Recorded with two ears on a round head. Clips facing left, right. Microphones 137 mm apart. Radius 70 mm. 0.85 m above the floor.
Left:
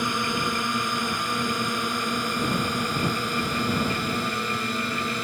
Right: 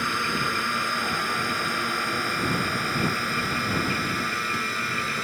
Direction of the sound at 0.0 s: 15° left (ahead or behind).